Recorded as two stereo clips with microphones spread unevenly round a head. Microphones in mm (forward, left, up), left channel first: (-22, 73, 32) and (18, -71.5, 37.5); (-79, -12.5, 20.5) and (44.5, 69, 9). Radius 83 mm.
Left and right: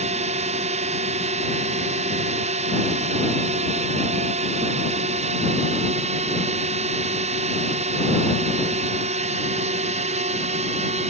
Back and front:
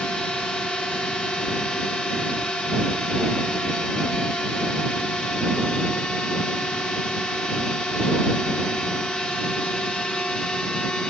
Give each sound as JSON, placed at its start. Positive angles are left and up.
{"t": 0.0, "sound": "a drone", "azimuth_deg": -60}